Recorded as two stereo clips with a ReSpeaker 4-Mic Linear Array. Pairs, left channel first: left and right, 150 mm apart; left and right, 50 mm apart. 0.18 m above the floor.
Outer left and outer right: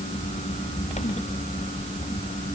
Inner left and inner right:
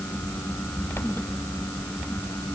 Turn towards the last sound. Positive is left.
No sound to turn to.